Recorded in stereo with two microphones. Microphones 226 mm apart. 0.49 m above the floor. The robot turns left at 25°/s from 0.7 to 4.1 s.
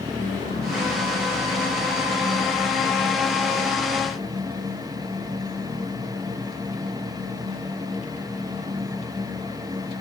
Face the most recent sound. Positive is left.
No sound to turn to.